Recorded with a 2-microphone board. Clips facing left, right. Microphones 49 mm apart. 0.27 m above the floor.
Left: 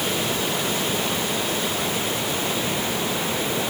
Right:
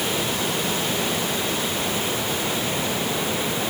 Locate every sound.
Only background noise.